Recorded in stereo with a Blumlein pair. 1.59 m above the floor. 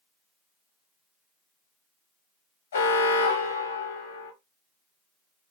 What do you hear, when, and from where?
2.7 s an alarm: 65° left, 0.9 m